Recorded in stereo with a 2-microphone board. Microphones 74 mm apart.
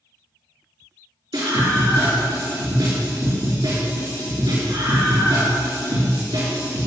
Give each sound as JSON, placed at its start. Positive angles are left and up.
{"t": 1.3, "sound": "a scream", "side_deg": -75, "distance_m": 4.5}